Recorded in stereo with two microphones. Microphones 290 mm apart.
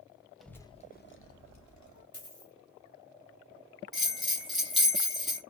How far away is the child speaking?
About 0.8 m.